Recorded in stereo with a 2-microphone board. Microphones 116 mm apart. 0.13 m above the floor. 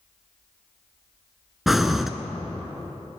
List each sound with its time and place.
1.7 s breathing: centre (ahead or behind), 0.6 m